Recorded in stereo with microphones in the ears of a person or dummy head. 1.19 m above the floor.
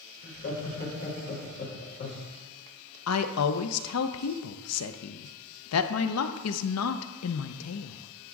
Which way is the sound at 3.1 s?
80° left.